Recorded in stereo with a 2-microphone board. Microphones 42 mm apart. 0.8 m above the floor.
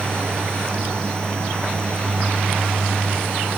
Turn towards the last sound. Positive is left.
No sound to turn to.